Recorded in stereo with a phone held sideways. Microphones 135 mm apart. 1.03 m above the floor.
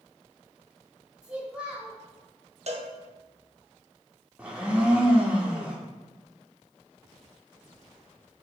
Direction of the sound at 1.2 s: 10° right (ahead or behind).